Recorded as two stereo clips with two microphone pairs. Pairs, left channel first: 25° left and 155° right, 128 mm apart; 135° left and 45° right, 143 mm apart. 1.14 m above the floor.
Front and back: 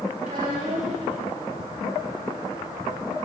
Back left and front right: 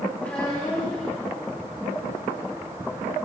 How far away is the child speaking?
About 6.5 m.